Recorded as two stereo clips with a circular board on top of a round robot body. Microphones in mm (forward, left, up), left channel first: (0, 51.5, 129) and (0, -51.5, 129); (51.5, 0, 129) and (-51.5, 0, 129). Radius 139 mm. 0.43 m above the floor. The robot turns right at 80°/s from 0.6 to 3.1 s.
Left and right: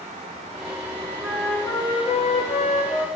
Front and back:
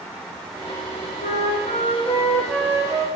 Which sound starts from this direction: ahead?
A flute, at 1.2 s.